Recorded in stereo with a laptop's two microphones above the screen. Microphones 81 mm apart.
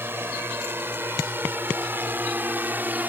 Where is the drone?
25° right (ahead or behind); by 3.1 s 20° right (ahead or behind).